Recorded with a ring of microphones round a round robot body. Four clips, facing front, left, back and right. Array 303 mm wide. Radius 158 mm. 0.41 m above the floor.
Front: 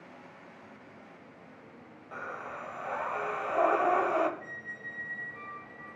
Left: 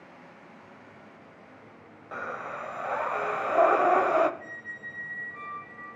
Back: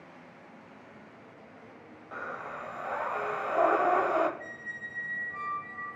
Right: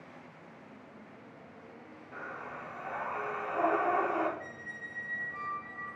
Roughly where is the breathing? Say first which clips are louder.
Left 7 dB, back 1 dB; left.